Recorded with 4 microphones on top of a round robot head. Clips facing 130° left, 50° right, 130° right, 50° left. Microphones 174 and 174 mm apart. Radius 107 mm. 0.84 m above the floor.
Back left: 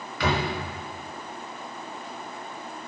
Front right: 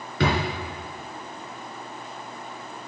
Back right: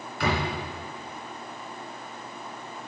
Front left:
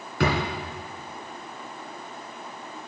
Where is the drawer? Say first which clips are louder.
Front right 2 dB, front left 3 dB; 10° left, 2 m.